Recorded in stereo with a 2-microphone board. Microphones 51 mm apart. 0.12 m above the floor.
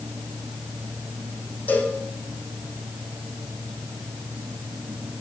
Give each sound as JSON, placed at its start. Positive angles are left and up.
{"t": 1.7, "sound": "a cowbell", "side_deg": 35, "distance_m": 6.0}